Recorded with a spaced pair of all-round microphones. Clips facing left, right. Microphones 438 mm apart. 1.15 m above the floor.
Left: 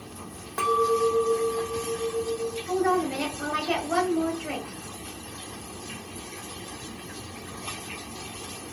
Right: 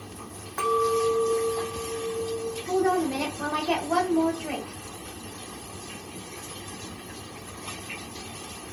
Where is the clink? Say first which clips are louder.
Left 1 dB; 50° left (ahead or behind), 0.6 m.